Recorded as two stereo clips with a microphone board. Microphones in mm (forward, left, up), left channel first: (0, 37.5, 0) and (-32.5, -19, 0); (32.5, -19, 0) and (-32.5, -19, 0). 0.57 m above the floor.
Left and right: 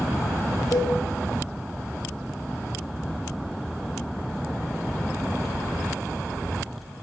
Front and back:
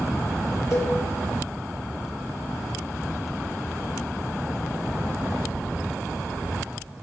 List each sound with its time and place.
0.7 s a cowbell: 40° left, 3 m